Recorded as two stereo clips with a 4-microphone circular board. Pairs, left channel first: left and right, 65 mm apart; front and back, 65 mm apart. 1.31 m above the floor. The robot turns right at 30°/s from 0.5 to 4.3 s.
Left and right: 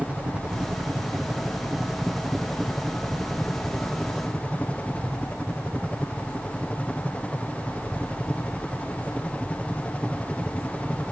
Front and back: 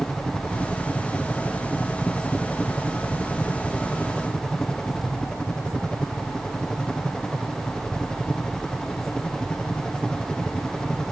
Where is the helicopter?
55° right; by 11.1 s 55° left.